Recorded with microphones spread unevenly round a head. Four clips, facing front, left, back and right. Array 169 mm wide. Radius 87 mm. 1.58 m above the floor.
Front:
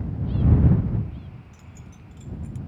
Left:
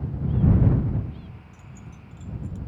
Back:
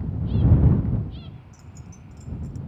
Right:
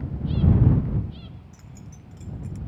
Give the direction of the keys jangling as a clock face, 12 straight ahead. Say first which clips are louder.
Even, back 1 dB; 2 o'clock.